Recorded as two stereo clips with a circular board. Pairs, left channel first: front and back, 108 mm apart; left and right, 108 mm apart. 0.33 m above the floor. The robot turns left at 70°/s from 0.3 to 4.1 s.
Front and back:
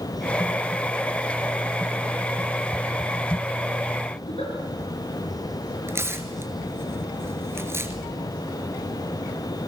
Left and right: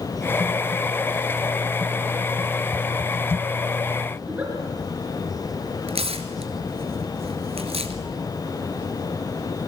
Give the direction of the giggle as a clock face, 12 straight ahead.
1 o'clock.